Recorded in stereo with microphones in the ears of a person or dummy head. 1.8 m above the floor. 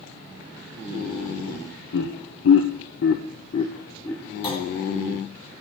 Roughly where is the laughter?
Left.